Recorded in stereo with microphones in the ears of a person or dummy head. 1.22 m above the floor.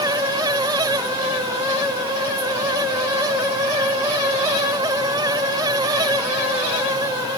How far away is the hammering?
I don't hear hammering.